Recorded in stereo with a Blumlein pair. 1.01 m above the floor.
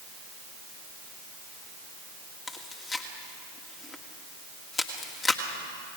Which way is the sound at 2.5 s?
20° left.